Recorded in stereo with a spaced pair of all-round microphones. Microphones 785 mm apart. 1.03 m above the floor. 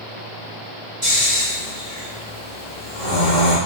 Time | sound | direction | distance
1.0 | snoring | 50° right (ahead or behind) | 1.6 m